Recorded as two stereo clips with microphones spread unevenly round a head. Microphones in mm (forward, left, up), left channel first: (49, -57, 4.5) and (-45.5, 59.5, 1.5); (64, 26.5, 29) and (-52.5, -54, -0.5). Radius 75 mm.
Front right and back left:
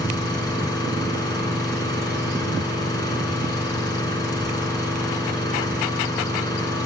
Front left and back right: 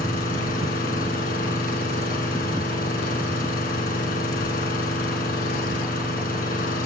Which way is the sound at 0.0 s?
15° left.